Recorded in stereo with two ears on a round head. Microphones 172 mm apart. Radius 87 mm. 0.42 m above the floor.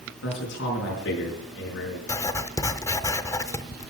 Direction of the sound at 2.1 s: 15° left (ahead or behind).